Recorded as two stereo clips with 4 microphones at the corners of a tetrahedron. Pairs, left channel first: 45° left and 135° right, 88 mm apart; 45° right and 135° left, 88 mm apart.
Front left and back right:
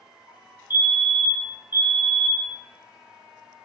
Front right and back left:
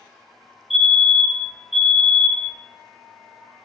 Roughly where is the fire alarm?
Behind right.